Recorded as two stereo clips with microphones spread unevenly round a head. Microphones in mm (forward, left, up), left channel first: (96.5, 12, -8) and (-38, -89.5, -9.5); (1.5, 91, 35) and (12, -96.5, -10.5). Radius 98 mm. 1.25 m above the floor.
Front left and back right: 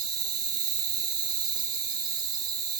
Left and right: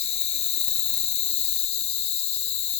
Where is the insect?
145° left, 1.7 m.